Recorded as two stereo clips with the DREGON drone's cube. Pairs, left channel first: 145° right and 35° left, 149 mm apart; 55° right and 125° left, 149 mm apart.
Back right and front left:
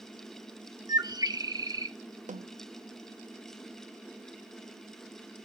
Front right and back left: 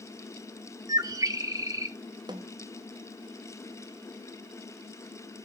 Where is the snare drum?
65° left, 0.5 m.